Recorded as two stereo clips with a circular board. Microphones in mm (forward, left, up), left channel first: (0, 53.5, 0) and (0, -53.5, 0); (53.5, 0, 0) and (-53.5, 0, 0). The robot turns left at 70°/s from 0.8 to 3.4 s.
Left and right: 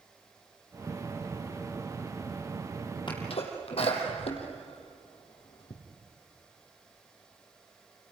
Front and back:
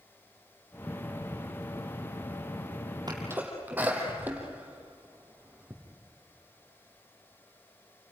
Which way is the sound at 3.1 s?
130° left.